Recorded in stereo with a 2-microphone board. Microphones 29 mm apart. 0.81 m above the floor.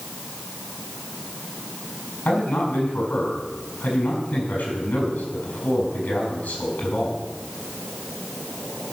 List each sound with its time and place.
2.2 s a man speaking: 85° left, 6 m